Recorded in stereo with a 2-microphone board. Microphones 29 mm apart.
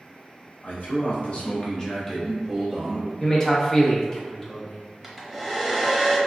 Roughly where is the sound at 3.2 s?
Left.